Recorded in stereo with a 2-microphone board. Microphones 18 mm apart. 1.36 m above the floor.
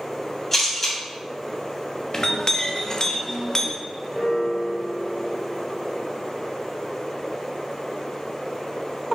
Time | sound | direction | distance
0.5 | a camera shutter | 20° left (ahead or behind) | 3 m
2.1 | a clink | 35° left (ahead or behind) | 0.8 m
4.1 | a piano | 35° right (ahead or behind) | 2 m